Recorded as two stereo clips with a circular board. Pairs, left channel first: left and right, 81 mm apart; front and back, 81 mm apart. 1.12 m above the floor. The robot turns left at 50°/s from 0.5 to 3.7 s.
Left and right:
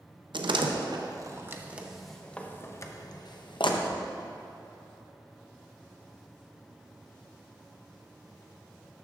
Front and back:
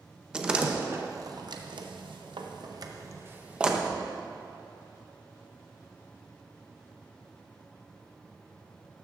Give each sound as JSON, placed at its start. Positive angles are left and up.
{"t": 0.3, "sound": "a door slam", "azimuth_deg": -105, "distance_m": 0.6}